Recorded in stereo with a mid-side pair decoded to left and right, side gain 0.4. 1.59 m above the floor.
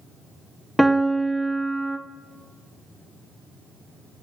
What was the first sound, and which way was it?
A piano, 5° left.